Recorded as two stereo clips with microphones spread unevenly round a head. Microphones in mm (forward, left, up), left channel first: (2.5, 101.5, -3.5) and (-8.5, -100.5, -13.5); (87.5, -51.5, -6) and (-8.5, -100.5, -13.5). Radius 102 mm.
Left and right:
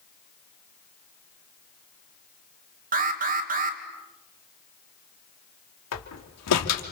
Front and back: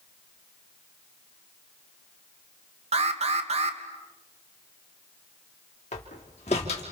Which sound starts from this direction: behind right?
An alarm, at 2.9 s.